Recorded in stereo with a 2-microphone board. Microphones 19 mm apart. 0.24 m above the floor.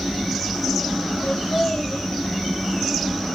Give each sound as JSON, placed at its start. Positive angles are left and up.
{"t": 1.2, "sound": "laughter", "side_deg": 75, "distance_m": 6.0}